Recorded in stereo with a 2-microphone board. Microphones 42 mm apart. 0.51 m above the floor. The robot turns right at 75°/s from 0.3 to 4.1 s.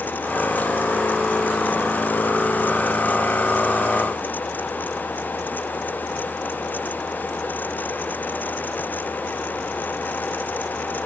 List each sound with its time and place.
Only background noise.